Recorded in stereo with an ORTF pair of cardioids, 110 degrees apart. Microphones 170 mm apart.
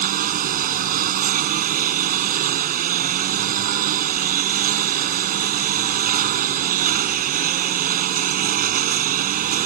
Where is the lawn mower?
60° right.